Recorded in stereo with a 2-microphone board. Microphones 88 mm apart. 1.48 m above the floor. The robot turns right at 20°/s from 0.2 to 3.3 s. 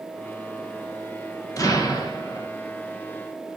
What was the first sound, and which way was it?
An explosion, 40° left (ahead or behind).